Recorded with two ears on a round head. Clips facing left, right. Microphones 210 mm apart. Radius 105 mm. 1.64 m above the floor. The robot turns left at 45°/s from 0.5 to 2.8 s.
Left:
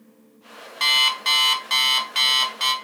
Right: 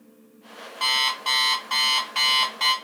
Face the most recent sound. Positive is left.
turn(degrees=25)